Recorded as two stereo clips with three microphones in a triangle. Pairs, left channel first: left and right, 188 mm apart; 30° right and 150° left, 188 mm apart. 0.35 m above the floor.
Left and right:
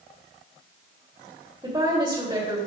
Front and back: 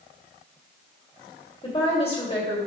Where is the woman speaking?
45° right, 1.6 m.